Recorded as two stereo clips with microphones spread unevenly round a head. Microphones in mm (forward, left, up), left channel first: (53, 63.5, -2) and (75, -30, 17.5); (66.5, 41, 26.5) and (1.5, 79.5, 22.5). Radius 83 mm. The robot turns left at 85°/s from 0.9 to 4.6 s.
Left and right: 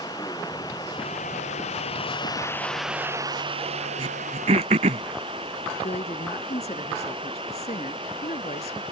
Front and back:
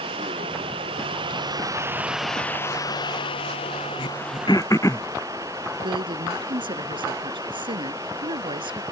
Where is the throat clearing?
50° right; by 5.0 s 105° right.